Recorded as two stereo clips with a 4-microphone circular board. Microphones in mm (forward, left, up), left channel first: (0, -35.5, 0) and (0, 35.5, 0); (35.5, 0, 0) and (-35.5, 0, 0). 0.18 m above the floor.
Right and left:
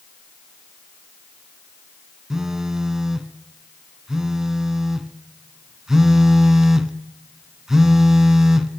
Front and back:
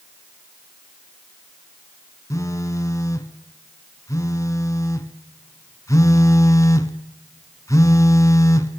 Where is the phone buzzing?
10° left, 1.0 m.